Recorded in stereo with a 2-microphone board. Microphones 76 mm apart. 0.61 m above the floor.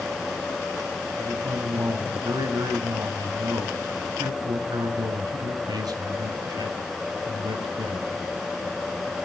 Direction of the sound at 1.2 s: 65° right (ahead or behind).